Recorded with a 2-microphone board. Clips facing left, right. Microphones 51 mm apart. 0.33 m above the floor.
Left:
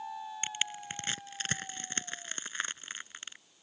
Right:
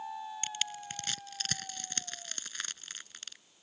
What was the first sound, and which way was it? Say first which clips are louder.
Crushing: left 2 dB; 25° left (ahead or behind).